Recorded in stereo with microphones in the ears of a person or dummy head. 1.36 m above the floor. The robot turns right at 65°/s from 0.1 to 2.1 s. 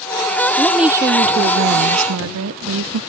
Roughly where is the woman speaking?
Behind.